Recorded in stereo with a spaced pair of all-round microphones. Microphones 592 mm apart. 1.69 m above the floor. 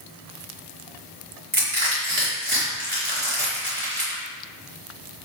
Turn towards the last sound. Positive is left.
turn(degrees=-50)  # may be behind; listen again after turning